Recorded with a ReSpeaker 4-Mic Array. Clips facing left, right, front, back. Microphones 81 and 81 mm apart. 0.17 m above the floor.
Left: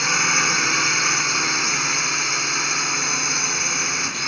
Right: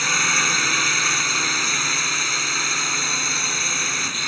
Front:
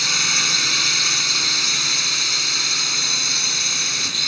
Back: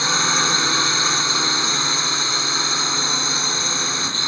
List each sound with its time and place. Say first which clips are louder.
0.0 s a drone: left 1 dB, back 6 dB; 170° left